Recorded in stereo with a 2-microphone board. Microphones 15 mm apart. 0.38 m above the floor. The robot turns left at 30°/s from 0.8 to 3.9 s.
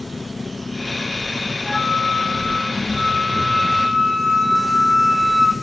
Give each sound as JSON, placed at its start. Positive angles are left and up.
{"t": 0.0, "sound": "an engine running", "azimuth_deg": 95, "distance_m": 8.0}
{"t": 1.6, "sound": "a flute", "azimuth_deg": 65, "distance_m": 5.0}